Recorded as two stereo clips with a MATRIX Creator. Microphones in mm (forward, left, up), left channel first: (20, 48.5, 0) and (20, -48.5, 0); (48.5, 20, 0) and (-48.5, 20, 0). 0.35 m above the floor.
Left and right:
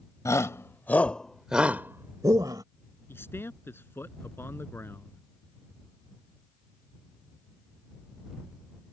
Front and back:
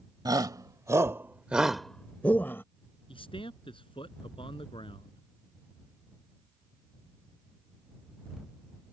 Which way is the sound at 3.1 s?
25° left.